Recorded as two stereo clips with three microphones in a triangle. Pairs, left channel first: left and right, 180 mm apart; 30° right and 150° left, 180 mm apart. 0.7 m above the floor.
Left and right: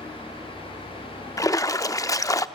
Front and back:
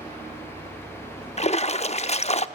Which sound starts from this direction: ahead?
A splash, at 1.4 s.